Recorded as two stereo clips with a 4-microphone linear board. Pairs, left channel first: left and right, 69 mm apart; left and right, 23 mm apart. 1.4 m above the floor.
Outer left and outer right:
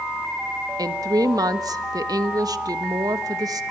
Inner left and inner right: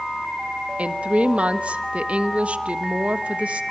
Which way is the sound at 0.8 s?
75° right (ahead or behind).